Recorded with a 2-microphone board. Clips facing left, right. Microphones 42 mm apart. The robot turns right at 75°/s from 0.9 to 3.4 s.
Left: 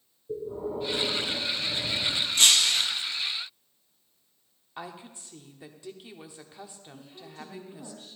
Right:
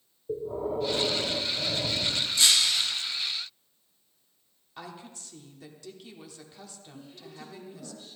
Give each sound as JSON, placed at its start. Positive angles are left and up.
{"t": 0.3, "sound": "breathing", "azimuth_deg": -120, "distance_m": 1.8}
{"t": 2.4, "sound": "breaking glass", "azimuth_deg": 60, "distance_m": 1.0}
{"t": 4.8, "sound": "a woman speaking", "side_deg": 20, "distance_m": 0.9}
{"t": 6.9, "sound": "a woman speaking", "side_deg": 70, "distance_m": 3.5}